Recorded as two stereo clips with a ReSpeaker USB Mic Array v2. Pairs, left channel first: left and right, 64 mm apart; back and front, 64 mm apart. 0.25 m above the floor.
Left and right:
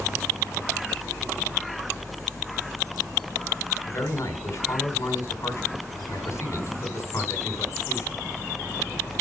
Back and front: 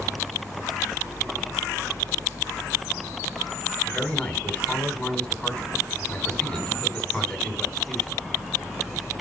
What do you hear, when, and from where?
3.9 s a man speaking: 100° left, 2.5 m